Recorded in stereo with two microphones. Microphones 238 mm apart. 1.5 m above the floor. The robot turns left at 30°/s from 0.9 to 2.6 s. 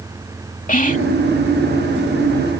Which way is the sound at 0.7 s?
35° left (ahead or behind).